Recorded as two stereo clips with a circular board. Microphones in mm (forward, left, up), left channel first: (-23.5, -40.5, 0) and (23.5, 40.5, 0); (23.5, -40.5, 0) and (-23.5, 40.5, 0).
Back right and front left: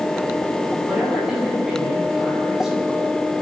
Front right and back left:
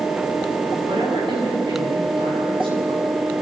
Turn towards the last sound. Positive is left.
turn(degrees=150)